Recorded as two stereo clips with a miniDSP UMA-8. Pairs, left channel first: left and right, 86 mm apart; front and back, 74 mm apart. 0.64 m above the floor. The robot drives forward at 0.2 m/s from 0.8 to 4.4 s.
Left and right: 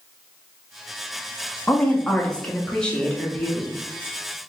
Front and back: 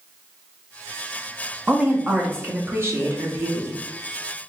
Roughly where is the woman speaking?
Behind left.